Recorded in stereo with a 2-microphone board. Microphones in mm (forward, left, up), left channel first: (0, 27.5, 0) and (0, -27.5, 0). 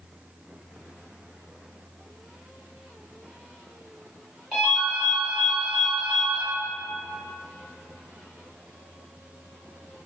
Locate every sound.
4.5 s a ringtone: 10° left (ahead or behind), 1.7 m